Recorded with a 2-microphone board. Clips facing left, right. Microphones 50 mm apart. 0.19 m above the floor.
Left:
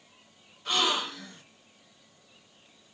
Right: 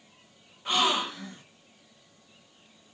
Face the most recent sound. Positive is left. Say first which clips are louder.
# right 2 dB
turn(degrees=-20)  # may be behind; listen again after turning